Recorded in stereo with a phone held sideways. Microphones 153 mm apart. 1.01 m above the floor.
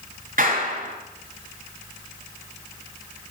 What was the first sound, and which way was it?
A clap, 65° right (ahead or behind).